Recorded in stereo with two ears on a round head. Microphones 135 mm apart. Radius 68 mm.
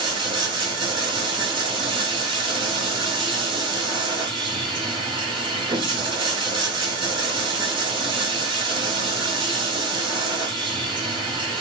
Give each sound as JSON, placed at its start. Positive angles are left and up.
{"t": 0.0, "sound": "running water", "side_deg": -35, "distance_m": 1.4}